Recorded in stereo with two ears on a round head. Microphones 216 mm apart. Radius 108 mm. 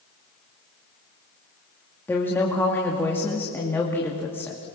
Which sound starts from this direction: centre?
A woman speaking, at 2.1 s.